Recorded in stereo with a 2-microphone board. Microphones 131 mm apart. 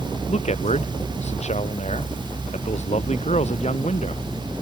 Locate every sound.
0.3 s a man speaking: 55° left (ahead or behind)